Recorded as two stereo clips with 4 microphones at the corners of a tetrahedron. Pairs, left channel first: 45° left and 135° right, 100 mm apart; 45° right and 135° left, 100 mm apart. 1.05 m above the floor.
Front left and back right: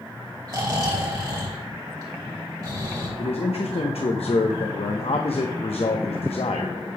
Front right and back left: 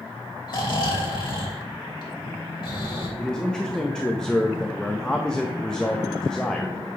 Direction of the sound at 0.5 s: 85° right.